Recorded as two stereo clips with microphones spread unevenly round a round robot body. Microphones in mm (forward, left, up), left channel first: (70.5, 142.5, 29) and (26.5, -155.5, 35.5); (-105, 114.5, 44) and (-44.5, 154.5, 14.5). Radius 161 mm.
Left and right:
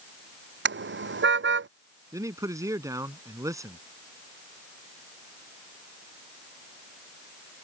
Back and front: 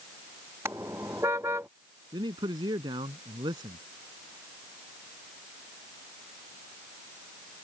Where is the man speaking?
20° right.